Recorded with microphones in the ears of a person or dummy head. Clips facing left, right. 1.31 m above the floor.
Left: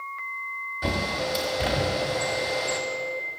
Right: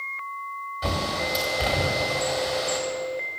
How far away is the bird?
About 1.0 m.